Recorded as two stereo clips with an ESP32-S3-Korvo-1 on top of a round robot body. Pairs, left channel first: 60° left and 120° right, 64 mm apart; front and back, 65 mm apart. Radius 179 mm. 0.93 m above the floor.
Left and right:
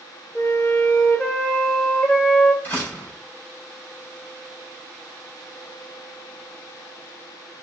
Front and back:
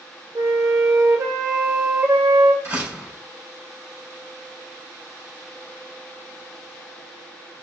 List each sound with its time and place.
0.3 s a flute: 130° left, 1.3 m
2.6 s a door slam: 120° left, 4.5 m